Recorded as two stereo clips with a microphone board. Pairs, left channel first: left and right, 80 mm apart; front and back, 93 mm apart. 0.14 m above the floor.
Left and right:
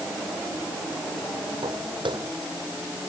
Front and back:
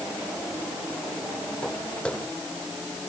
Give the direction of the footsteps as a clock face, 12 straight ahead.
3 o'clock.